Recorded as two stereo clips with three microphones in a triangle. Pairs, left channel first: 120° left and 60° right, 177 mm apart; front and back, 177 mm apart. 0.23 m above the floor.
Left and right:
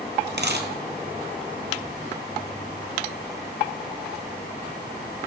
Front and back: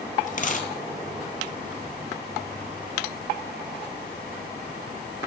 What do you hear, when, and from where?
0.3 s a dropped coin: 45° right, 1.6 m